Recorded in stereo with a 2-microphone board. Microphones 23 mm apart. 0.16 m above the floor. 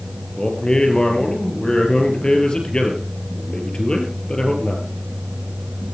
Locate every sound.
0.4 s a man speaking: 40° left (ahead or behind), 4 m